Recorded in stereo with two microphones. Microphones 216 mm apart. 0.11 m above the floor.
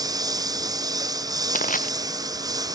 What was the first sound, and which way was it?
A lawn mower, 15° right (ahead or behind).